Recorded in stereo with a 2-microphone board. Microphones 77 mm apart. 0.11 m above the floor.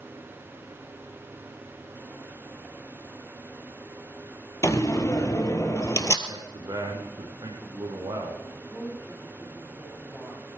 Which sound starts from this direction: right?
A man speaking, at 6.3 s.